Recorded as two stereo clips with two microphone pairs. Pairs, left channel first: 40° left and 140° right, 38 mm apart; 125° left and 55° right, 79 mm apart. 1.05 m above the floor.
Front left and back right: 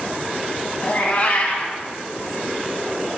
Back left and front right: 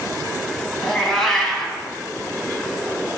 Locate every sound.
0.8 s a cat meowing: 40° left, 1.1 m